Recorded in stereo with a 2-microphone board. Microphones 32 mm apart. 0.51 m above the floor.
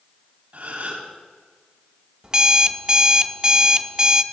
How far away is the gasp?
About 3 m.